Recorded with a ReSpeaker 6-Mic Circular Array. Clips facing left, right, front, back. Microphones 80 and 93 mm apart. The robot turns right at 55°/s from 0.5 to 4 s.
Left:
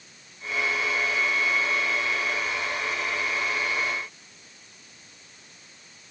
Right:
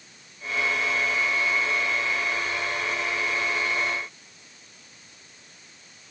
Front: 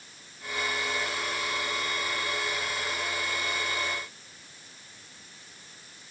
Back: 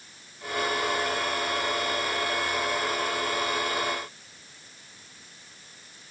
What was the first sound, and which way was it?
Only background noise.